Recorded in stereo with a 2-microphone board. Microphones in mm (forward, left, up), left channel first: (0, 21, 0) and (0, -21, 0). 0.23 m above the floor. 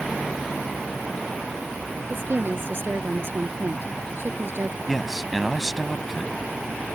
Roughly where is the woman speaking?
Right.